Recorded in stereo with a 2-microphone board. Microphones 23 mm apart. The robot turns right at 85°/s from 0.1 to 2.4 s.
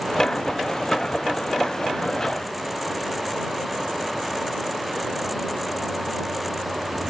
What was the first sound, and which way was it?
Only background noise.